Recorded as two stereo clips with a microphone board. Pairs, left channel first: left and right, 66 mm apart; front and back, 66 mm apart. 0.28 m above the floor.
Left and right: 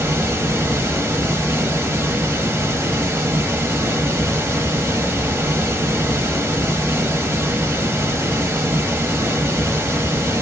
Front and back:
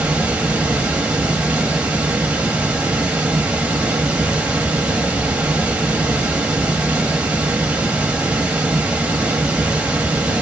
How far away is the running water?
About 0.8 m.